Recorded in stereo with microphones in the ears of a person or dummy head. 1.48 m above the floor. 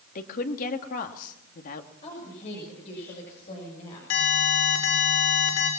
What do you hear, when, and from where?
0.1 s a woman speaking: 40° left (ahead or behind), 2 m
2.0 s a woman speaking: 35° left (ahead or behind), 7 m
4.1 s an alarm: 85° left, 7 m